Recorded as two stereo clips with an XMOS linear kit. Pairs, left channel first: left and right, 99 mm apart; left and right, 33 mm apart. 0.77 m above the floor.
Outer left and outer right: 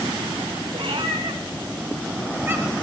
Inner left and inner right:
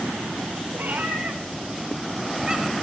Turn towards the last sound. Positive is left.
turn(degrees=-20)  # may be behind; listen again after turning